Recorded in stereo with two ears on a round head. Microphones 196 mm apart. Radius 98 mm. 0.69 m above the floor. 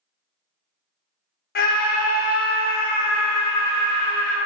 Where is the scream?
45° left (ahead or behind), 0.6 m.